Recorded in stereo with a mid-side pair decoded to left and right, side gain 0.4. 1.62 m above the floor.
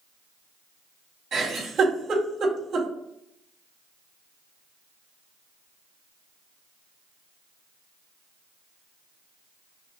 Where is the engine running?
No engine running in this recording.